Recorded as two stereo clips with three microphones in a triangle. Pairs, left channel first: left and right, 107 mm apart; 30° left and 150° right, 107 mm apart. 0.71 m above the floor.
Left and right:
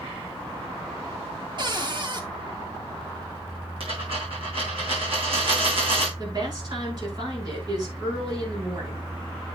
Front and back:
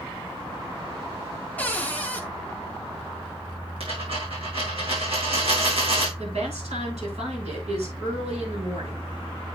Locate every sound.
1.6 s a cupboard door: 45° right, 1.2 m
3.8 s a dropped coin: 120° right, 5.5 m
6.2 s a woman speaking: 140° right, 6 m